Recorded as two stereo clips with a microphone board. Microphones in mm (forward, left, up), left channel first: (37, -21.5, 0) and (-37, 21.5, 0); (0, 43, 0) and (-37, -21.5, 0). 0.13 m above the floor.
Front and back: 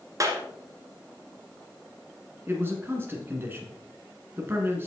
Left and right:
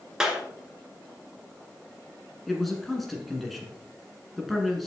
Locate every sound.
0.2 s a clap: 165° left, 1.7 m
2.5 s a man speaking: 145° left, 1.5 m